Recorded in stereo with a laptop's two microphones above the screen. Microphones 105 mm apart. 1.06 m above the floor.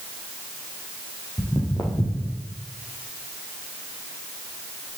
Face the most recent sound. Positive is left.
turn(degrees=30)  # may be behind; listen again after turning